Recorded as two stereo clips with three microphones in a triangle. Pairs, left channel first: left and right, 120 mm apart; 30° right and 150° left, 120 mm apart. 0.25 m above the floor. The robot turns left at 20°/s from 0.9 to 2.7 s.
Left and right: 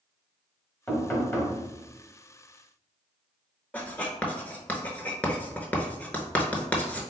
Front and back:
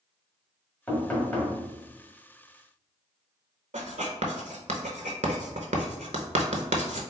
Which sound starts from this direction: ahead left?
Knocking, at 0.9 s.